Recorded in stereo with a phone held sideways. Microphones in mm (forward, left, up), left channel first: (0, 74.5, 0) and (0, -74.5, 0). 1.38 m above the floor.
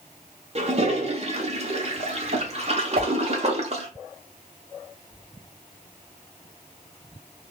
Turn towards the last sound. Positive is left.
turn(degrees=-75)  # may be behind; listen again after turning